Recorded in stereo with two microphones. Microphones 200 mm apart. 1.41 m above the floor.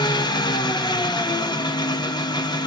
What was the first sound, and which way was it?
An engine running, 20° left (ahead or behind).